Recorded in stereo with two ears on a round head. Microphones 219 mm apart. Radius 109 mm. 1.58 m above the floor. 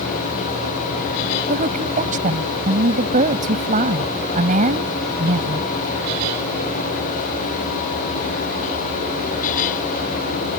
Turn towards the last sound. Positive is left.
turn(degrees=-35)  # may be behind; listen again after turning